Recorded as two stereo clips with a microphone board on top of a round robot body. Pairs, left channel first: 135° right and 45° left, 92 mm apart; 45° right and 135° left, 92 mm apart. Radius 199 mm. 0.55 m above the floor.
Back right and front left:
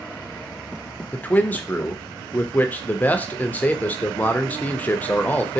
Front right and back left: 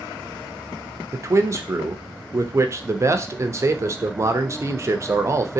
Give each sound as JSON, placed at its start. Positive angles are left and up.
{"t": 1.1, "sound": "a man speaking", "azimuth_deg": 165, "distance_m": 0.8}